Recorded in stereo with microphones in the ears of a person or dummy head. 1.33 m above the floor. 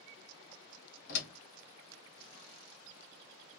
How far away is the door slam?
About 1.1 m.